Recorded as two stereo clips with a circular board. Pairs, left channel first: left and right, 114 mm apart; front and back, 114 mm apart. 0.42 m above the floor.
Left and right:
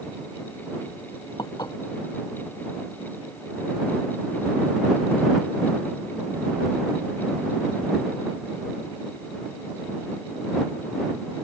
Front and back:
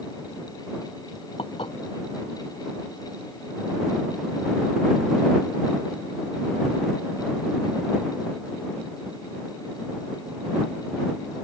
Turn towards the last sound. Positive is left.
turn(degrees=40)